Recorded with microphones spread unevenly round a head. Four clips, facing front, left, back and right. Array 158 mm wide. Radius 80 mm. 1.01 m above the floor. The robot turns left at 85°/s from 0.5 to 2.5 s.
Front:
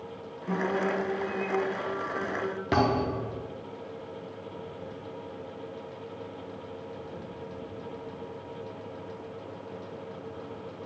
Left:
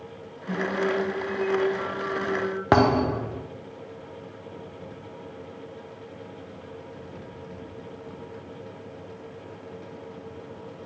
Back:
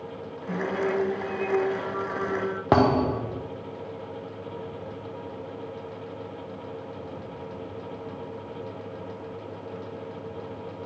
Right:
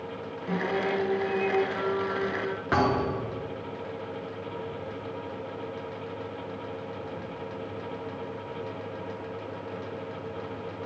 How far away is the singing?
About 3 m.